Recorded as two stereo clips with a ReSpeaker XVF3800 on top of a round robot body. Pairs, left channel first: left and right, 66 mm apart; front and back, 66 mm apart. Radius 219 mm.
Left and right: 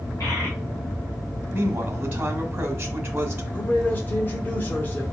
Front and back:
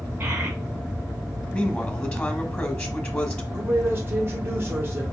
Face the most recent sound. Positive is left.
turn(degrees=140)